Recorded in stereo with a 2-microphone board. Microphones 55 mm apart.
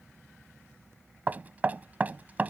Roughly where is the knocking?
Right.